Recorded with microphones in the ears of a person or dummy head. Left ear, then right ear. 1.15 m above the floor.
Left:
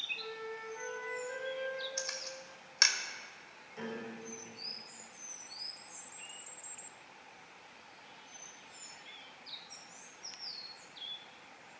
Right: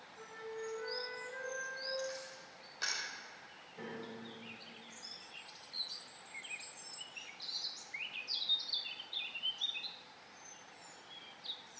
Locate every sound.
0.1 s a flute: 45° left (ahead or behind), 7 m
2.0 s a camera shutter: 70° left (ahead or behind), 1.9 m
3.8 s a piano: 75° left (ahead or behind), 6.5 m